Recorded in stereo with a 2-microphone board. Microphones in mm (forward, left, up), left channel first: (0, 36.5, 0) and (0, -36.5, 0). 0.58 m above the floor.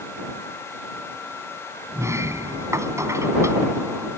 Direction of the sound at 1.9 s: 40° right (ahead or behind).